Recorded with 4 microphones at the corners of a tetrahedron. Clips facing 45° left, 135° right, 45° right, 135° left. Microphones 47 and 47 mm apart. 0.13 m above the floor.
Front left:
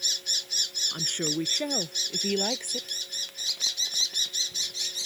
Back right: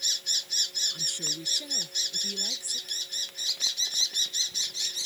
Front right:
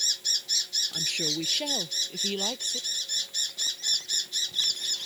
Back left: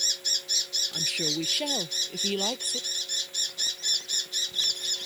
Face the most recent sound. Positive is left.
turn(degrees=60)